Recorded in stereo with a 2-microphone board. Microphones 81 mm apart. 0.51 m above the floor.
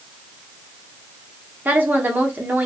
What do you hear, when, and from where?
1.6 s a woman speaking: 25° right (ahead or behind), 1.1 m